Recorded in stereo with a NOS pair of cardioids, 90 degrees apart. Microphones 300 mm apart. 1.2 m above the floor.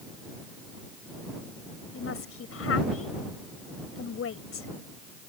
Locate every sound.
1.9 s a woman speaking: 50° left